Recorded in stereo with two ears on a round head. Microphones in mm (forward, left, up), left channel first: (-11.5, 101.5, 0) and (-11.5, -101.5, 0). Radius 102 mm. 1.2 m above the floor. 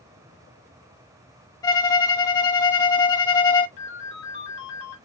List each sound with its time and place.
1.6 s a violin: 15° left (ahead or behind), 0.7 m
3.8 s a ringtone: 55° left (ahead or behind), 1.7 m